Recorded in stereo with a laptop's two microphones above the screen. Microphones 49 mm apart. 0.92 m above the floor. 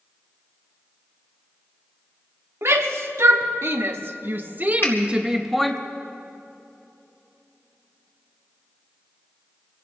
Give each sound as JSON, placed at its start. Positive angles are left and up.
{"t": 2.6, "sound": "a shout", "side_deg": -75, "distance_m": 2.0}
{"t": 4.8, "sound": "a finger snap", "side_deg": 50, "distance_m": 2.5}